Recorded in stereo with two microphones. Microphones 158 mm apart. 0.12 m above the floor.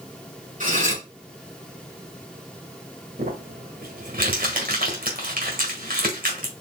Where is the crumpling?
65° right (ahead or behind), 1.5 m.